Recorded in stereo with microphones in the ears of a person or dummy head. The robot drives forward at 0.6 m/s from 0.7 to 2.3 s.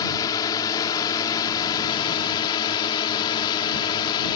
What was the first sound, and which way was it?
A drone, 20° left (ahead or behind).